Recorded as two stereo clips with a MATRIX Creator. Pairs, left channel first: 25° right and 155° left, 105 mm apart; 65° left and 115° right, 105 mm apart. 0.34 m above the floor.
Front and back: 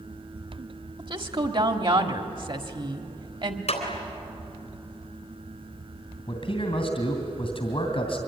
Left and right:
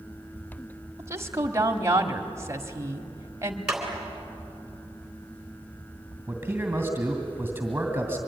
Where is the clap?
30° right, 3.5 m.